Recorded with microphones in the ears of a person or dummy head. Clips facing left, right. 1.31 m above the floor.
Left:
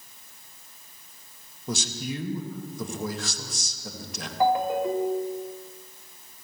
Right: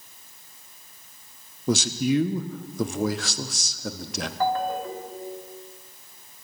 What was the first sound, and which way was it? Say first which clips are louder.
A man speaking: right 10 dB; 55° right (ahead or behind).